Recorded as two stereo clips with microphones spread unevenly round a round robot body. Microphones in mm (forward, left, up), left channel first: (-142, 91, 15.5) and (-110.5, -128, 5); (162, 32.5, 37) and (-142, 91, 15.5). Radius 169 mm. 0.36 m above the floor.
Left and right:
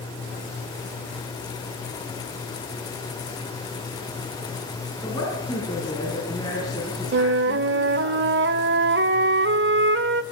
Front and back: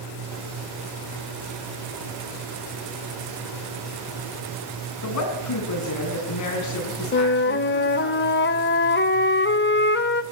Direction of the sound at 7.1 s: 65° right.